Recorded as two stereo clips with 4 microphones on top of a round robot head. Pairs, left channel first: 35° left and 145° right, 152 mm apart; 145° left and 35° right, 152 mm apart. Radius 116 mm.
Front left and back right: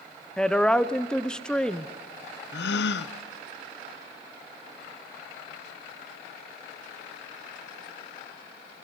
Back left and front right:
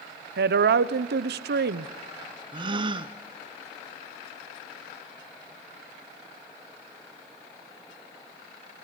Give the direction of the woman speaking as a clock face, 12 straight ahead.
2 o'clock.